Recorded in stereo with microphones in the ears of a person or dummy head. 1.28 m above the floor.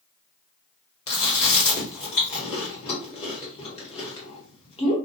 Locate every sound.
1.1 s chewing: 25° left (ahead or behind), 1.0 m